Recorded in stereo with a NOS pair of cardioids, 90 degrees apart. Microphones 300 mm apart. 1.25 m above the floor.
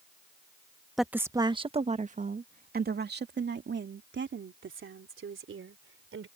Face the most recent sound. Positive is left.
turn(degrees=-45)